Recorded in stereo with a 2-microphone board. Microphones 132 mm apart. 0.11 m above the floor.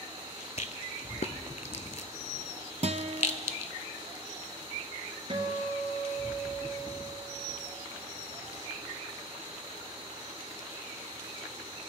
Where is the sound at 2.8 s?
55° right (ahead or behind), 0.5 m.